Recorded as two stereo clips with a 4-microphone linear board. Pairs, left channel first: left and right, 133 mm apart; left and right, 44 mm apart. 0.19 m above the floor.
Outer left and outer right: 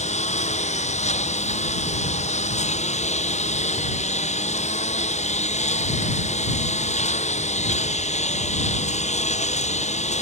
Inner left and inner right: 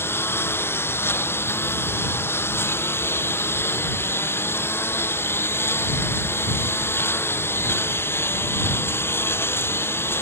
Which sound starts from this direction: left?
A lawn mower, at 0.0 s.